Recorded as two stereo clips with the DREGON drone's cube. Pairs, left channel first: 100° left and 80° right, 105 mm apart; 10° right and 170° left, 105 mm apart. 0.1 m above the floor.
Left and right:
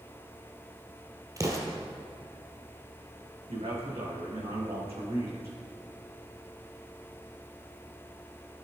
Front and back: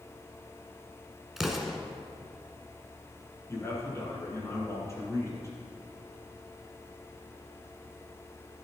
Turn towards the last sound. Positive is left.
turn(degrees=-70)